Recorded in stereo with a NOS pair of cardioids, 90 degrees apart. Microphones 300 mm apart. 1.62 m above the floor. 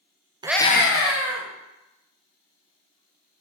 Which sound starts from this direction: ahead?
A scream, at 0.4 s.